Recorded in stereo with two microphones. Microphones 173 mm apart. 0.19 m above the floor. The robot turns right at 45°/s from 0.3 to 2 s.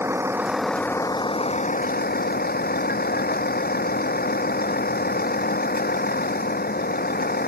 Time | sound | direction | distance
0.0 | a vehicle | 15° right | ?